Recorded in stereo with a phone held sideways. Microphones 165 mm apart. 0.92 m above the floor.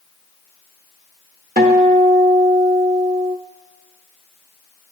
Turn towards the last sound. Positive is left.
turn(degrees=-60)  # may be behind; listen again after turning